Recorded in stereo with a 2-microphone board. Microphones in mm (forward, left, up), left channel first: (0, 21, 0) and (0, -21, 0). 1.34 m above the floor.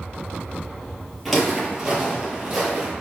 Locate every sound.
1.2 s footsteps: centre (ahead or behind), 1.4 m; by 2.9 s 15° right (ahead or behind), 1.5 m